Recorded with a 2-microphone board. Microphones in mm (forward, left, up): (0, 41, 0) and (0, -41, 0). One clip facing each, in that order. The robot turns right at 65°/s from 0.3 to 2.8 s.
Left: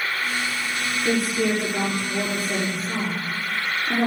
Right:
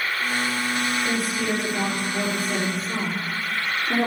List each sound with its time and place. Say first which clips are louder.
1.1 s a woman speaking: left 3 dB; 60° left, 5 m; by 4.1 s 175° left, 5 m